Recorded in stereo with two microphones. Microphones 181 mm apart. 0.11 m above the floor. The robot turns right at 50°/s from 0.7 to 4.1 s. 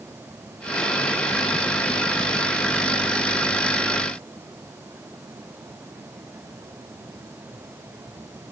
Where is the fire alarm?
No fire alarm in this recording.